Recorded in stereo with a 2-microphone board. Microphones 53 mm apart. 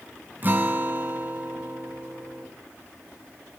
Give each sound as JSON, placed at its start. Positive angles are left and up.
{"t": 0.4, "sound": "a guitar", "side_deg": -35, "distance_m": 2.0}